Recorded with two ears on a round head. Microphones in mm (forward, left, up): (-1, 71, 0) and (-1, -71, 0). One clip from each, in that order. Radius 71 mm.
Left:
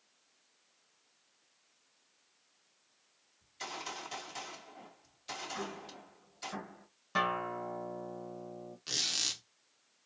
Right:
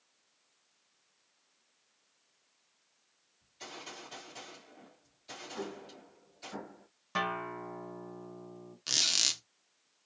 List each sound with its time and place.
3.4 s a gunshot: 45° left (ahead or behind), 2.5 m
5.5 s an explosion: 50° left (ahead or behind), 2 m
7.2 s a guitar: 10° right (ahead or behind), 1.0 m
8.9 s a squeak: 35° right (ahead or behind), 0.6 m